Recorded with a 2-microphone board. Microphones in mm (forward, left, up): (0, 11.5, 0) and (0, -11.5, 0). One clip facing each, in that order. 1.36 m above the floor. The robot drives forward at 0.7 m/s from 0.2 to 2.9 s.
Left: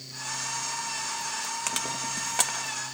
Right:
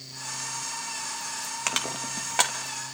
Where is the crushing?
20° right (ahead or behind), 2 m; by 2.6 s 15° right (ahead or behind), 3 m.